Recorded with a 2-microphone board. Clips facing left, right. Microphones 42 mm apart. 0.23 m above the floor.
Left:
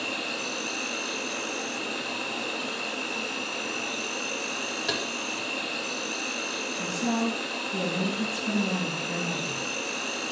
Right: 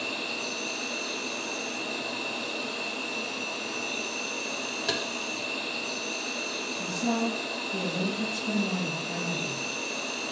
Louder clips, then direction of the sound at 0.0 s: Left 1 dB; 60° left (ahead or behind).